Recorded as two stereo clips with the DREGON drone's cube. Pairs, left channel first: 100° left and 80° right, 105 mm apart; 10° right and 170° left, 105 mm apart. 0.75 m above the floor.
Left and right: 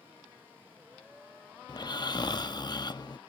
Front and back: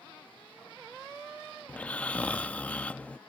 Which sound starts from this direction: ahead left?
Snoring, at 1.7 s.